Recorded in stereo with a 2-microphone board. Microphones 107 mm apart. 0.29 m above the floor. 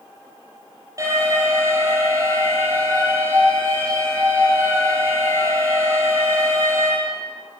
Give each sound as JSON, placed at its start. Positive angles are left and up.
{"t": 1.0, "sound": "an alarm", "side_deg": -30, "distance_m": 10.0}